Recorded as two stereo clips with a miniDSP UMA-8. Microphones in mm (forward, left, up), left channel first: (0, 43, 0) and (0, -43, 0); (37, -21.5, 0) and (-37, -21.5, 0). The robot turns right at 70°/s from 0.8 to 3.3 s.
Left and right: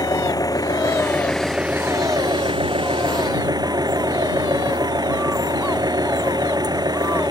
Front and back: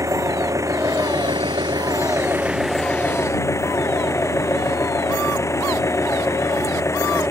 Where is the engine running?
135° left; by 7.3 s 50° right.